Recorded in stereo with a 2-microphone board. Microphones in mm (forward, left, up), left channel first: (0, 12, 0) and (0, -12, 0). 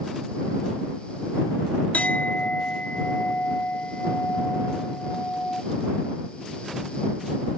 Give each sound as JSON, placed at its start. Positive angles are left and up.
{"t": 1.9, "sound": "a clink", "side_deg": 75}